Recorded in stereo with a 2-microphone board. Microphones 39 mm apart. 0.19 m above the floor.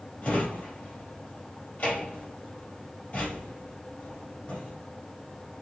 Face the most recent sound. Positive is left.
turn(degrees=30)  # may be behind; listen again after turning